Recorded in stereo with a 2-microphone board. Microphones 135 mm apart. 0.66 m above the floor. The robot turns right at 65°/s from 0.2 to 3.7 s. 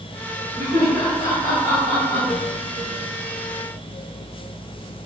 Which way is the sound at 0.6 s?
20° right (ahead or behind).